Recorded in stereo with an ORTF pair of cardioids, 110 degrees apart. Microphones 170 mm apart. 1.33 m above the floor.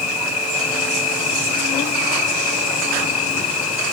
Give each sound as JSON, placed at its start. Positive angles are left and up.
{"t": 0.0, "sound": "an insect", "azimuth_deg": 45}